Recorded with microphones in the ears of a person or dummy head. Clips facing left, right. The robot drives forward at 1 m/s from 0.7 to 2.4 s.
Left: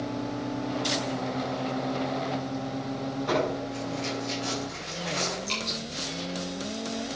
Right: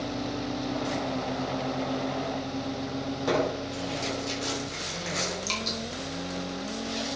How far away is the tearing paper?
About 6.5 m.